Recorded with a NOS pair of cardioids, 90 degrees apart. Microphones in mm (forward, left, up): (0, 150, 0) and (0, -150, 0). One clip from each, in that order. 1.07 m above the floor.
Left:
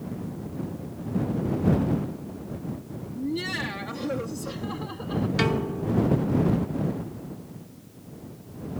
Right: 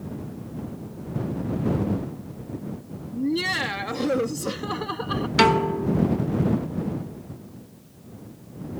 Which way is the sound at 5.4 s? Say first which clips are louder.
Right 10 dB; 60° right.